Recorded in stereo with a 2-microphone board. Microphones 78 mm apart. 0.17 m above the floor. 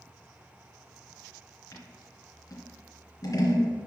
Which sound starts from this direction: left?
Scissors, at 1.7 s.